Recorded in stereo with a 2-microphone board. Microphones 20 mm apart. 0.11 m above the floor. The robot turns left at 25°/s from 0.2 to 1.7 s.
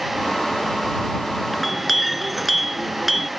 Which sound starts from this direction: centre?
A clink, at 1.5 s.